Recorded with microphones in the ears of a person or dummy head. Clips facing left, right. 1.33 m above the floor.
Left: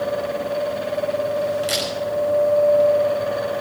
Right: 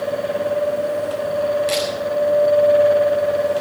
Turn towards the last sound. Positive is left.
turn(degrees=5)  # may be behind; listen again after turning